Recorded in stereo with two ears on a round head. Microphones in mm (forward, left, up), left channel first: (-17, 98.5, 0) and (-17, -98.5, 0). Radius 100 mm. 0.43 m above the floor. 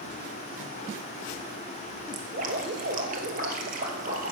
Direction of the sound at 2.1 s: 35° right (ahead or behind).